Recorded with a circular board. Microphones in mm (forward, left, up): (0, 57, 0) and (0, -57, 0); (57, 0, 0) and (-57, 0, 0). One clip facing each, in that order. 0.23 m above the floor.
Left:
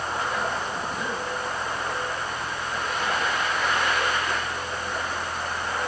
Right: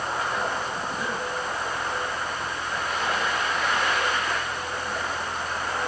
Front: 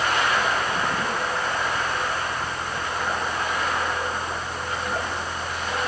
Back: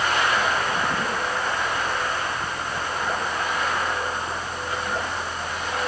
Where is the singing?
I don't hear singing.